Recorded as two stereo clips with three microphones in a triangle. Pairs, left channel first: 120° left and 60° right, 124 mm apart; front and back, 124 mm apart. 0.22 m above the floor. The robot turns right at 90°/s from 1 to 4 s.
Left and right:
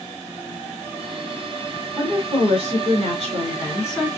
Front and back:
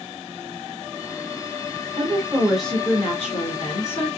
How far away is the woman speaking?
About 2.5 m.